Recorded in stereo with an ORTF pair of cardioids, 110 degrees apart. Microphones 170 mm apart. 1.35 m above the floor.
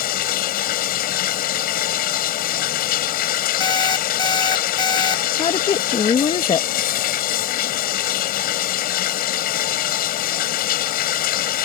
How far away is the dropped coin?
No dropped coin in this recording.